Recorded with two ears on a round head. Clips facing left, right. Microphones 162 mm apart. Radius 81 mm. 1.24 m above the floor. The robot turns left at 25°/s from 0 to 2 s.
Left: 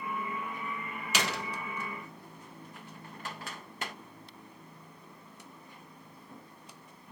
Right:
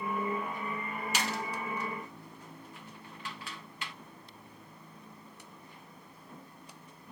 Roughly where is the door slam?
Left.